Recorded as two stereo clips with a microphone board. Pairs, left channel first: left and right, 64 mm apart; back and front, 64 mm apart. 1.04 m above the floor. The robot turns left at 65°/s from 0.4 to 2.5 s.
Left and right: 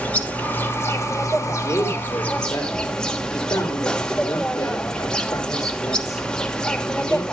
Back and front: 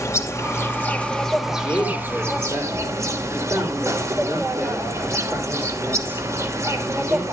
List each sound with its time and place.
0.0 s an insect: 155° left, 1.2 m; by 7.3 s 15° left, 1.2 m
1.4 s a man speaking: 120° left, 2.5 m; by 7.2 s 55° left, 2.5 m